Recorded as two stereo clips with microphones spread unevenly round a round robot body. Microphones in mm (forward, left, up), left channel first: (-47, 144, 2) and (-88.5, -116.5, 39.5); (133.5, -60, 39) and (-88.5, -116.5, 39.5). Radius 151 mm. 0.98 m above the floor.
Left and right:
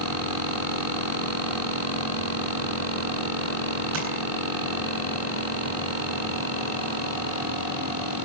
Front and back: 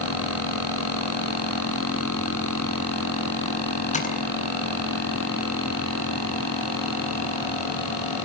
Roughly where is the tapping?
Ahead right.